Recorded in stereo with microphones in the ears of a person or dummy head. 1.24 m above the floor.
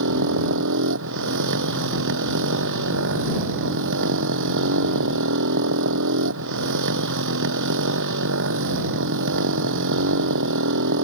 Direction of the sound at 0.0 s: 65° right (ahead or behind).